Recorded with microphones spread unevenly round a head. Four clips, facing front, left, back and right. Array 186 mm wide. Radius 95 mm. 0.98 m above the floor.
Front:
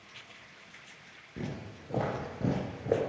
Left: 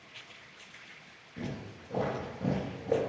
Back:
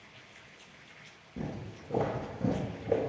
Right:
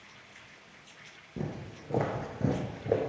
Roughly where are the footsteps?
Right.